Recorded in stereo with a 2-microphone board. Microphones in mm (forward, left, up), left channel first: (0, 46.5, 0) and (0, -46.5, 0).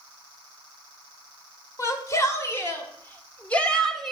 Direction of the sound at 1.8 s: 35° left (ahead or behind).